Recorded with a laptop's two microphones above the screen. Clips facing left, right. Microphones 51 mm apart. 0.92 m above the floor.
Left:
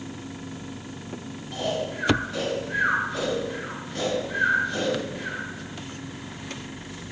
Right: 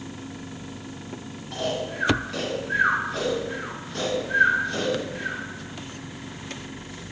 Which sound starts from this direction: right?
Snoring, at 1.5 s.